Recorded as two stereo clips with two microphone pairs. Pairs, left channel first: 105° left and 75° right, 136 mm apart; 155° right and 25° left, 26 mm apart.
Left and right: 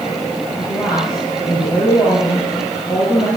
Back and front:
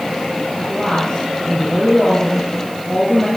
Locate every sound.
0.6 s a woman speaking: 155° left, 3.5 m